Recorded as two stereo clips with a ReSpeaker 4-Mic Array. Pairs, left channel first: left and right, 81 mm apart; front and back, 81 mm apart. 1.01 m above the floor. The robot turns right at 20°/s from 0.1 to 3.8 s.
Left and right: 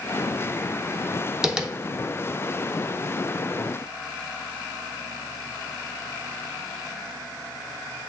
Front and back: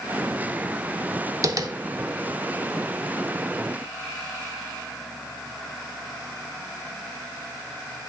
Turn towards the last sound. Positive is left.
turn(degrees=-125)